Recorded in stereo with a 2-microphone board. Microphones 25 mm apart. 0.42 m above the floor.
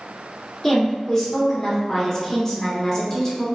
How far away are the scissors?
No scissors in this recording.